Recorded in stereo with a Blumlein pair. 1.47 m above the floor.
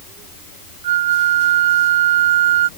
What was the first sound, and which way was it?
A flute, 55° right.